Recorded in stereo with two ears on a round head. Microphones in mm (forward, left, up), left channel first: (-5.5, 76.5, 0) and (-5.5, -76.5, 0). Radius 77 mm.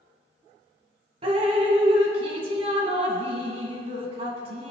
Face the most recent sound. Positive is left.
turn(degrees=-35)  # may be behind; listen again after turning